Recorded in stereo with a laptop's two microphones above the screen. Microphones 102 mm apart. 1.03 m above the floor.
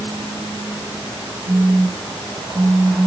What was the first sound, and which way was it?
A phone buzzing, 60° right (ahead or behind).